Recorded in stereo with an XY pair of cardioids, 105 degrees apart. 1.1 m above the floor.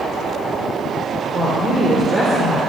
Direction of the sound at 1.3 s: 40° right.